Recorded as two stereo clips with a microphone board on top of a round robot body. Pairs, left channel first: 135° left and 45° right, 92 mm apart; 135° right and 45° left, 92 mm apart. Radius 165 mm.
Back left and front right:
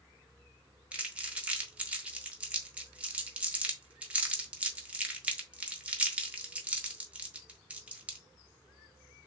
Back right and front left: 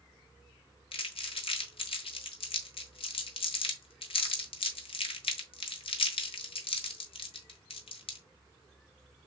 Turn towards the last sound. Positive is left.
turn(degrees=-120)